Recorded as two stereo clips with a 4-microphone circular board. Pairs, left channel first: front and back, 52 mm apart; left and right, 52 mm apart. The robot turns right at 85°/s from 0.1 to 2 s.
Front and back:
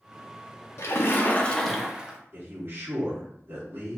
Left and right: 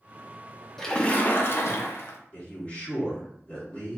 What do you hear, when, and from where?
0.8 s a splash: 5° left, 0.5 m; by 2.2 s 110° left, 0.5 m
2.3 s a man speaking: 145° left, 1.9 m